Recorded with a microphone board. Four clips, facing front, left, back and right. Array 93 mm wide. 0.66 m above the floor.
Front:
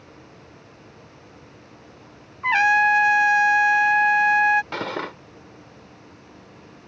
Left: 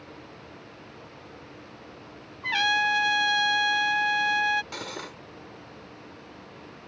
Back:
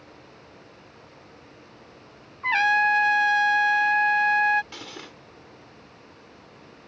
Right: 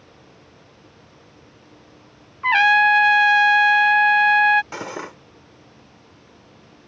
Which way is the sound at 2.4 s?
75° right.